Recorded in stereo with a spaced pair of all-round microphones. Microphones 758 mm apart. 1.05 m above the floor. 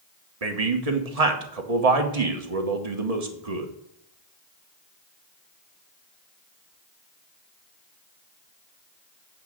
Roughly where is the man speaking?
Right.